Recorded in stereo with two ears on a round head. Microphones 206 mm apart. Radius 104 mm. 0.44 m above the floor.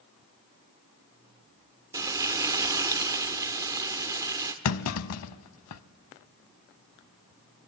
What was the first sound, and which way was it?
Frying, 15° right (ahead or behind).